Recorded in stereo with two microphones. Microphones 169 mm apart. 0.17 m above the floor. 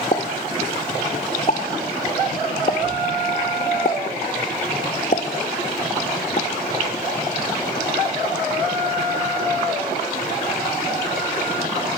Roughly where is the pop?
Left.